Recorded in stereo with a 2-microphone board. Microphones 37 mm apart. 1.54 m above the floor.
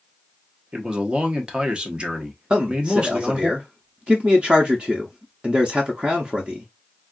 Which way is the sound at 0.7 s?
25° right (ahead or behind).